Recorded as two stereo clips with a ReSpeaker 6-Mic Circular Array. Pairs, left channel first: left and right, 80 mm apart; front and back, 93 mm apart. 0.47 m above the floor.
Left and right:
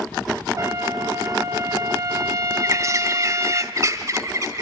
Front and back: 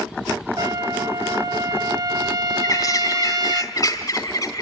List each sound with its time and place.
0.6 s a trumpet: 135° right, 0.8 m
2.6 s a bird: 45° right, 1.8 m